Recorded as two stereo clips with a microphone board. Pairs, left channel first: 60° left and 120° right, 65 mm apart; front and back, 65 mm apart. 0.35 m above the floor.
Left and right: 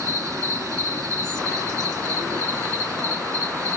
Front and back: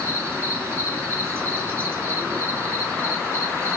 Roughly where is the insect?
Behind right.